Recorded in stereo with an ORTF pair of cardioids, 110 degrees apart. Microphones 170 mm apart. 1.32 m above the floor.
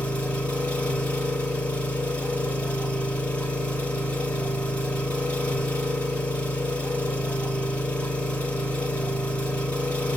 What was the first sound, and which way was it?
An engine running, 10° left.